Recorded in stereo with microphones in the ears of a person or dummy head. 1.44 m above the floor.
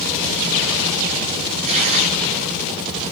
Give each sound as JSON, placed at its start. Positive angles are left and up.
{"t": 1.6, "sound": "tearing paper", "side_deg": -40, "distance_m": 5.0}